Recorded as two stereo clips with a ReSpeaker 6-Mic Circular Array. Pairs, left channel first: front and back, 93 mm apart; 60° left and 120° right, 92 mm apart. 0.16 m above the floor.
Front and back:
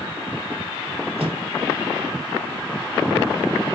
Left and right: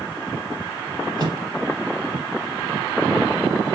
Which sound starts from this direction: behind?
A microwave, at 1.2 s.